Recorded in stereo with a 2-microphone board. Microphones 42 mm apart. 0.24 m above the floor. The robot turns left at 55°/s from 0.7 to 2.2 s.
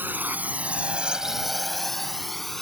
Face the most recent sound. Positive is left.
turn(degrees=10)  # may be behind; listen again after turning